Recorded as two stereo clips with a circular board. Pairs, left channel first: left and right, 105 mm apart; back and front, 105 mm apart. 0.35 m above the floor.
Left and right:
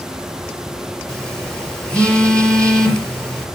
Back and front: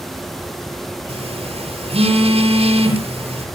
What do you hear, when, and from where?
1.1 s a phone buzzing: 10° left, 4.5 m